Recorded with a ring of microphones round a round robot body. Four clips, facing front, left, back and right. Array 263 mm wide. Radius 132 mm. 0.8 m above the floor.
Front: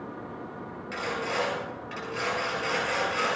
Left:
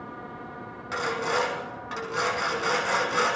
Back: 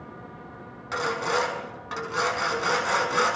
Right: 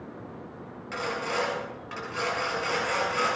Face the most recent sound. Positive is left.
turn(degrees=150)